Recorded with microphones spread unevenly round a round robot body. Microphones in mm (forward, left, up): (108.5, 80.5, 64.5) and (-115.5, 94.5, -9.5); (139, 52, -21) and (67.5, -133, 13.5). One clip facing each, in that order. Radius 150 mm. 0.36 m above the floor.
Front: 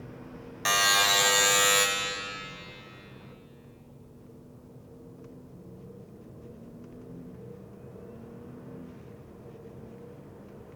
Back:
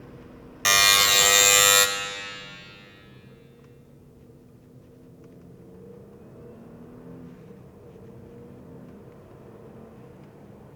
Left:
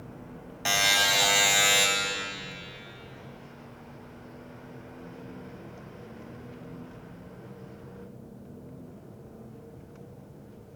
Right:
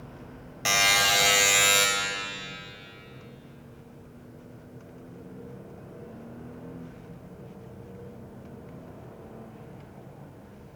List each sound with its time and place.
0.7 s a buzzer: 175° left, 0.9 m